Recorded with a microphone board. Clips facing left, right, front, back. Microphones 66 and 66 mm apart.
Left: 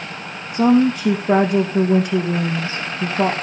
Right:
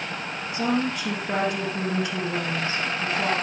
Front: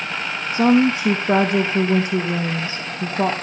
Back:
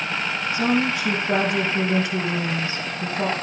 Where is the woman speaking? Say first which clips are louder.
Left 11 dB, front 7 dB; 50° left, 3 m.